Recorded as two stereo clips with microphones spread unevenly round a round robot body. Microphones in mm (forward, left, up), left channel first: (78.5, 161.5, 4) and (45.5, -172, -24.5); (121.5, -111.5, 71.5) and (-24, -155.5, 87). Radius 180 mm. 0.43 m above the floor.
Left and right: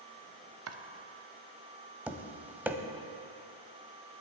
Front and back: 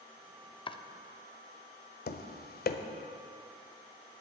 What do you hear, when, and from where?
0.7 s chopping: 45° right, 0.8 m
2.1 s tapping: 10° right, 0.9 m